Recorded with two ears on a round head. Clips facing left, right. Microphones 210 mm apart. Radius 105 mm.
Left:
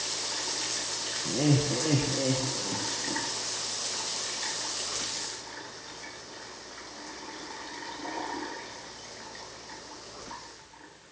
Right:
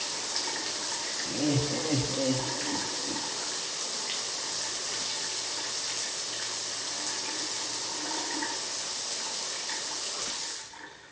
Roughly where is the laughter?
Left.